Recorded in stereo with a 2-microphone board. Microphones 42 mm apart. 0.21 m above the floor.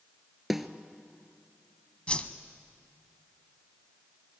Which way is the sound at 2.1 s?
25° left (ahead or behind).